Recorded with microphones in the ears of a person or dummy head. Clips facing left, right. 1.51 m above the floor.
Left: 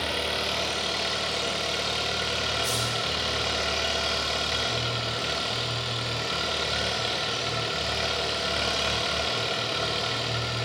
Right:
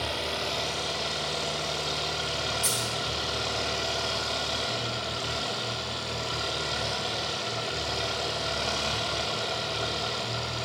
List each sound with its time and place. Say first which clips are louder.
0.0 s an engine running: left 2 dB; 30° left (ahead or behind), 1.3 m
2.6 s a dropped coin: left 2 dB; 50° right (ahead or behind), 1.8 m